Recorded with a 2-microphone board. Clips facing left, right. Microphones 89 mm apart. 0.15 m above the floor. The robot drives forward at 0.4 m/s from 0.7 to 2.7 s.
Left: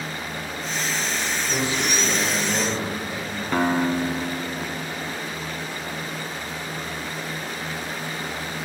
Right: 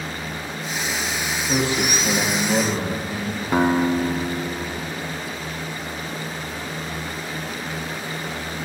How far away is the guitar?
About 0.6 m.